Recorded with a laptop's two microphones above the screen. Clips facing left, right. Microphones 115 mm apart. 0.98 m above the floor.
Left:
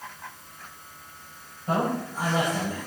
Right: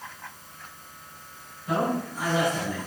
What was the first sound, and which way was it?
A man speaking, 40° left (ahead or behind).